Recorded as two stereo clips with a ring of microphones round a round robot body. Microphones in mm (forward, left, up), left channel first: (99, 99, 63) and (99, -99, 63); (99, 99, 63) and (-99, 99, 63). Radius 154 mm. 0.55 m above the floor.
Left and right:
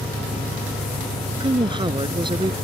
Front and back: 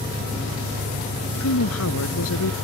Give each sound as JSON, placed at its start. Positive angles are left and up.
{"t": 0.0, "sound": "an engine running", "azimuth_deg": -140}
{"t": 1.4, "sound": "a woman speaking", "azimuth_deg": -20}